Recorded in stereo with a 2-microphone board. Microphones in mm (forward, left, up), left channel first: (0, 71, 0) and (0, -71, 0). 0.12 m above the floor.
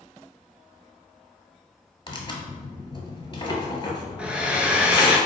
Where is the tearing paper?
40° left (ahead or behind), 0.9 m.